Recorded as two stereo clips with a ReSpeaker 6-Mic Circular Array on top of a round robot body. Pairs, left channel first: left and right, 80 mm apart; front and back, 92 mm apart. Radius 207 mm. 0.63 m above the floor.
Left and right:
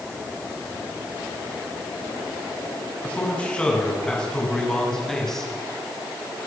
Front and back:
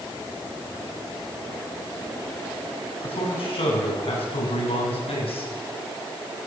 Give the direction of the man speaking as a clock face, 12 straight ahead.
11 o'clock.